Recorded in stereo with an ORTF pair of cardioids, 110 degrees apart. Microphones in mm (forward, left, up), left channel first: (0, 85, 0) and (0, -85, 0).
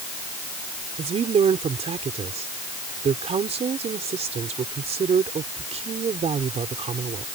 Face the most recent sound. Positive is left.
turn(degrees=-40)